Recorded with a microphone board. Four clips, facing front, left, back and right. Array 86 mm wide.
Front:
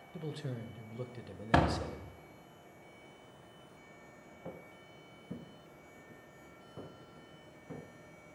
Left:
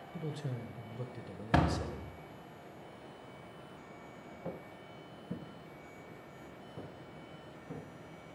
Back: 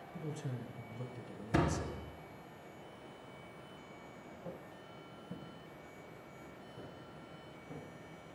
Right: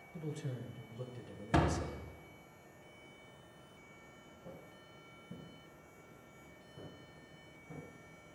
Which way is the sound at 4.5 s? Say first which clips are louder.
Left 9 dB, front 1 dB; 75° left.